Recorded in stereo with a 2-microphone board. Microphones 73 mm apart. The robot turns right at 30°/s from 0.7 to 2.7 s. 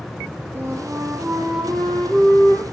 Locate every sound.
0.6 s a flute: 30° right, 4.5 m; by 2.6 s 25° left, 4.5 m